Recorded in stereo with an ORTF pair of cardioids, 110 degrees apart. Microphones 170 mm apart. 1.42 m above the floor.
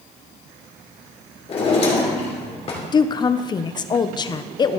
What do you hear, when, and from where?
1.5 s a drawer: 35° left, 2.5 m
2.9 s a woman speaking: 25° left, 0.5 m